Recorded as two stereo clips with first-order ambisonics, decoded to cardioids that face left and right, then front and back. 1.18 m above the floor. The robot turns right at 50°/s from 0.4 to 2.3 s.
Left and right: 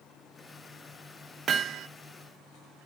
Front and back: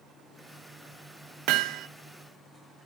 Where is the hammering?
150° right, 0.7 m; by 1.9 s 130° right, 0.7 m.